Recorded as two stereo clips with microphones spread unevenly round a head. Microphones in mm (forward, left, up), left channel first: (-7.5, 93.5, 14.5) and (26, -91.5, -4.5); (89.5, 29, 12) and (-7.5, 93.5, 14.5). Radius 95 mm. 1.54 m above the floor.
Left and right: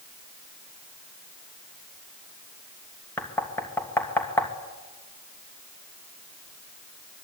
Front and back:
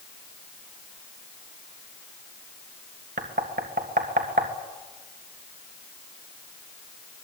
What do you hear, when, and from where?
3.2 s knocking: straight behind, 2.0 m